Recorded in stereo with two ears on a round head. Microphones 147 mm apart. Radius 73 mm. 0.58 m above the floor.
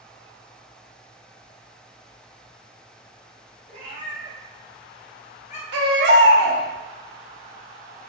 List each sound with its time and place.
3.7 s a cat meowing: 40° right (ahead or behind), 1.4 m; by 5.6 s 45° left (ahead or behind), 0.7 m
5.7 s a baby crying: 75° right (ahead or behind), 0.9 m